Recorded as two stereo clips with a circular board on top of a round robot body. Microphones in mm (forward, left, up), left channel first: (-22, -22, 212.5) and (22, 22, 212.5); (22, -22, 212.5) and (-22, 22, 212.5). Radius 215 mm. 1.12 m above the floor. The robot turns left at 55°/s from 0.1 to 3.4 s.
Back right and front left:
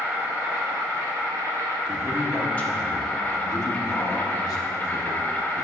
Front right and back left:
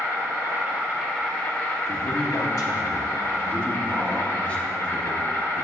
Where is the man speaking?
30° right, 1.1 m; by 5.6 s 115° right, 1.1 m.